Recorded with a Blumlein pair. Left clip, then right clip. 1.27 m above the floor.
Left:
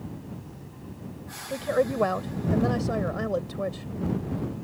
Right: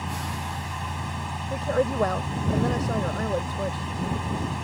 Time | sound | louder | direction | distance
0.0 | a fan | right 11 dB | 40° right | ?
1.5 | a woman speaking | even | straight ahead | ?